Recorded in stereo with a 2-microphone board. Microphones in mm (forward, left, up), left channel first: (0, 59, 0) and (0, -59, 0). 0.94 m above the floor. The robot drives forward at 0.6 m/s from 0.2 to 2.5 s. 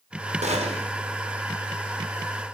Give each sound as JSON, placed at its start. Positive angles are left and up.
{"t": 0.4, "sound": "a gunshot", "side_deg": -75, "distance_m": 1.1}